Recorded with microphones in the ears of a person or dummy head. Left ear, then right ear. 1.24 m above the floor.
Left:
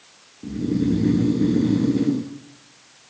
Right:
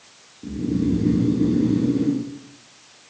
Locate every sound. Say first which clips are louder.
0.4 s snoring: left 1 dB; 20° left (ahead or behind), 0.7 m